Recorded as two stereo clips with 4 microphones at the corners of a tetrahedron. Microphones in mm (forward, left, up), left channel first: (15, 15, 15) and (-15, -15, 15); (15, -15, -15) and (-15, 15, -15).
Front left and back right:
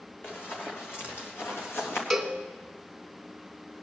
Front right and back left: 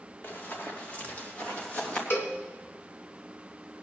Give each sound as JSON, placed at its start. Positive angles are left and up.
{"t": 0.2, "sound": "running footsteps", "azimuth_deg": 5, "distance_m": 3.5}
{"t": 2.1, "sound": "a cowbell", "azimuth_deg": -40, "distance_m": 1.8}